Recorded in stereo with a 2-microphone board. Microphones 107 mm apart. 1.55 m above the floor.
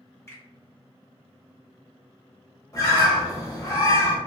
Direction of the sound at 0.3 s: 25° left (ahead or behind).